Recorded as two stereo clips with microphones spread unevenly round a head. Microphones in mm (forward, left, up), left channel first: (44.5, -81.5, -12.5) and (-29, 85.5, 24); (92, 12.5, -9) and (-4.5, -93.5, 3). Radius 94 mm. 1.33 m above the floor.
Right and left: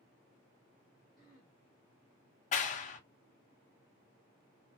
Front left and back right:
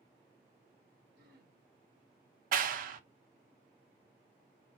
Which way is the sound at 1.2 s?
155° right.